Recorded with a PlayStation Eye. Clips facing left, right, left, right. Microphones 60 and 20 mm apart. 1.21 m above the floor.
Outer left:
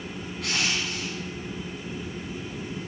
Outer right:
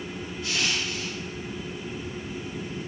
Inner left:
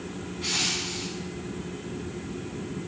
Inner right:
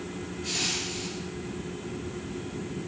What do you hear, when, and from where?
0.4 s crushing: 85° left, 7.5 m